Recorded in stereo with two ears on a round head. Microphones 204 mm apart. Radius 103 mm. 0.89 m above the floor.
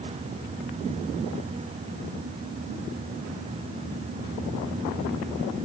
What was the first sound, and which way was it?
Only background noise.